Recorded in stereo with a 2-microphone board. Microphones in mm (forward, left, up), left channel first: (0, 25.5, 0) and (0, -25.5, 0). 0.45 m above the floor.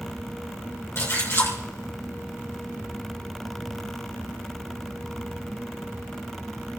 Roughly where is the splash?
Left.